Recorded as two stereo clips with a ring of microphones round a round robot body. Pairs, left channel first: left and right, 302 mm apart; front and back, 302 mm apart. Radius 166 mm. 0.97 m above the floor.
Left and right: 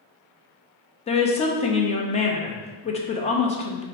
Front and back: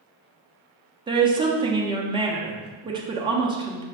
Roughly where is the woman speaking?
Behind left.